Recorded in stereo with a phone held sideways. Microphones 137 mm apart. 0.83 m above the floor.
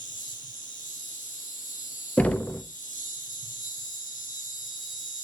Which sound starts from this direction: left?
An insect, at 0.0 s.